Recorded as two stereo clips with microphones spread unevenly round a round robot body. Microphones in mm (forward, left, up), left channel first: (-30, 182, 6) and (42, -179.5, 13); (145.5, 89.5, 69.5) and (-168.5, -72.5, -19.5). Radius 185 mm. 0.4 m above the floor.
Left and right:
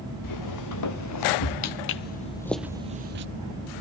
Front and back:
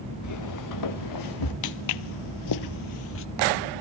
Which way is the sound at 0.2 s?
65° left.